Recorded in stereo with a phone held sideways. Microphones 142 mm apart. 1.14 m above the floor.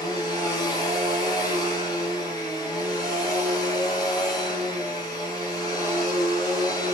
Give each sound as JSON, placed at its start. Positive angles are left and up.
{"t": 0.0, "sound": "a machine running", "side_deg": 25, "distance_m": 1.1}